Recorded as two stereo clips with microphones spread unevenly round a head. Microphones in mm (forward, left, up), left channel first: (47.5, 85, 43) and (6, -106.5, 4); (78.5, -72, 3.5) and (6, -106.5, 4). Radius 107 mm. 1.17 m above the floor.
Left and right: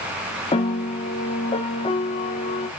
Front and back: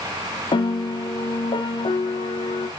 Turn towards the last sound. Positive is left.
turn(degrees=15)